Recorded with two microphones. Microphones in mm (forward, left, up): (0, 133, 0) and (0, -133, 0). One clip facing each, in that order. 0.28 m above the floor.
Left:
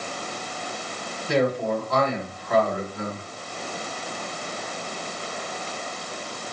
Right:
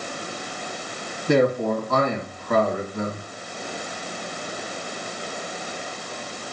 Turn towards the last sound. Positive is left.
turn(degrees=-55)  # may be behind; listen again after turning